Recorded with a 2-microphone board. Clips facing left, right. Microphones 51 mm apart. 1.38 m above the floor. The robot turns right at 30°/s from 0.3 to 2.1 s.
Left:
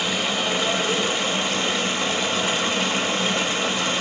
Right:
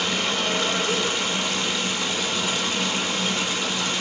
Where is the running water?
30° left, 0.8 m; by 4.0 s 80° left, 0.8 m.